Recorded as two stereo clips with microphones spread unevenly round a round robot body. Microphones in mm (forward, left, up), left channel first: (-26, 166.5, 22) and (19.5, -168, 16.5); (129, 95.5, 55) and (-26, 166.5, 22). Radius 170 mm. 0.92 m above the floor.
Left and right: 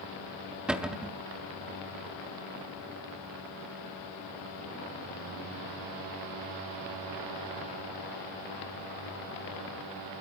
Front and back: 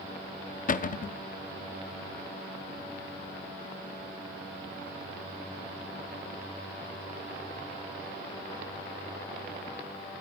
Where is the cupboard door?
5° left, 0.6 m.